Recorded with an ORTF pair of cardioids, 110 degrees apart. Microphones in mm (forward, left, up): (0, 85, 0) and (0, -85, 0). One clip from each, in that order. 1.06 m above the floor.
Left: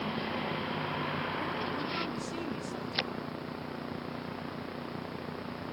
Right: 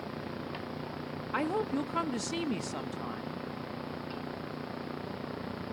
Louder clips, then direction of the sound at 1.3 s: Right 3 dB; 70° right.